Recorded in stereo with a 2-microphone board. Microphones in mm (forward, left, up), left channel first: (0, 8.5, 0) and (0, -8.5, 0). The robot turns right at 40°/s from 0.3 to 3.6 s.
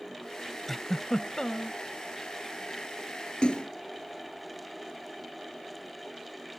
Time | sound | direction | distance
0.7 | a giggle | 10° left | ?
3.4 | a splash | 75° left (ahead or behind) | ?